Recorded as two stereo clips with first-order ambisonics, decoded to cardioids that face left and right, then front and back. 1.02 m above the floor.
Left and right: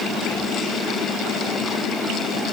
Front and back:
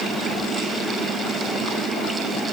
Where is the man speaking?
No man speaking in this recording.